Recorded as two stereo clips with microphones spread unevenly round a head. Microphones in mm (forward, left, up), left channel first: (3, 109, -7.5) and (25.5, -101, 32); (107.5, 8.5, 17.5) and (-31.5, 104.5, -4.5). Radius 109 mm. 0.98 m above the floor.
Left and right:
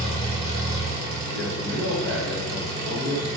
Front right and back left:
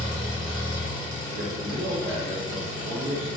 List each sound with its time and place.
0.0 s an engine running: 85° right, 0.8 m
1.3 s a man speaking: 145° right, 0.7 m